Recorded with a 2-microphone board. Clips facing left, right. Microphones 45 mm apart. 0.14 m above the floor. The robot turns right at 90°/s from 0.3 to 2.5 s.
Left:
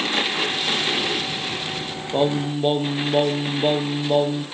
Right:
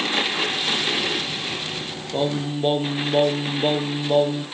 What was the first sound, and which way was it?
Singing, 145° left.